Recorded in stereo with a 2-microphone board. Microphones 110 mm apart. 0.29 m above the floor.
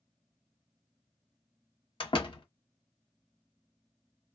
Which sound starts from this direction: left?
A door slam, at 2.0 s.